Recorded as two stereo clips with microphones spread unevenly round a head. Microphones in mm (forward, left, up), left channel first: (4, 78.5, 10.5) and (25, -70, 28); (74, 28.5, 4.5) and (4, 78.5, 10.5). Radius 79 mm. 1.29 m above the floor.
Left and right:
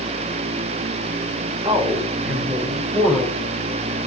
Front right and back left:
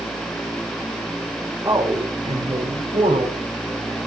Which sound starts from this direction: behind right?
A man speaking, at 1.6 s.